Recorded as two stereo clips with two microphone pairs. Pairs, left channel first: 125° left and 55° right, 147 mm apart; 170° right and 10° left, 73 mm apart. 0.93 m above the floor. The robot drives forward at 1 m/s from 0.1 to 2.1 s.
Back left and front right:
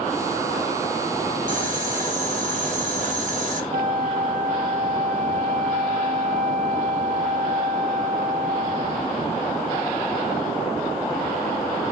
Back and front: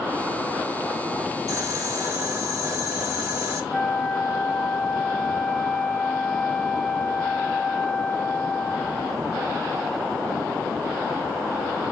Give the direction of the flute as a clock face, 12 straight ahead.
3 o'clock.